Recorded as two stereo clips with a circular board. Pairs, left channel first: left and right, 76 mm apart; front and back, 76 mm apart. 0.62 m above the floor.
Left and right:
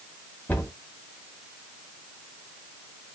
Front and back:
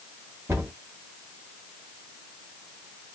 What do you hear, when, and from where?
0.5 s a cupboard door: 145° left, 1.4 m